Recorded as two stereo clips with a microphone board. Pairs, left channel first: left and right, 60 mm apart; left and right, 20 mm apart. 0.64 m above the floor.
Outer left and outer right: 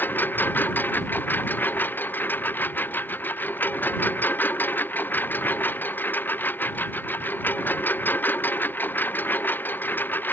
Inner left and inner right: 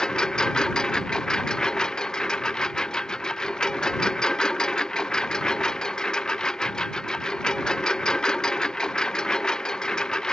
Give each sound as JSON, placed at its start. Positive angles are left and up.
{"t": 0.0, "sound": "a lawn mower", "side_deg": 30}